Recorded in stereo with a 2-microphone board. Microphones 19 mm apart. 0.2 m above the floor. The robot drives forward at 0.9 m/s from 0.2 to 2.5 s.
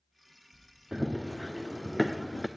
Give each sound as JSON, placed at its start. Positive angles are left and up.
{"t": 0.9, "sound": "running footsteps", "side_deg": -30, "distance_m": 0.7}